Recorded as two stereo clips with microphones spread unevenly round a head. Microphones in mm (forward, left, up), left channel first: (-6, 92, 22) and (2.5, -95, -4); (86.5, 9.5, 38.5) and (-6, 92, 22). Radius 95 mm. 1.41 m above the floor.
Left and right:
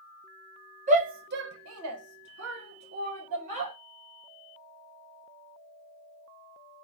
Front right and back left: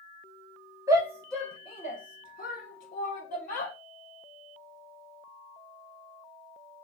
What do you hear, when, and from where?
0.9 s a shout: 145° right, 0.9 m; by 3.7 s 35° right, 1.6 m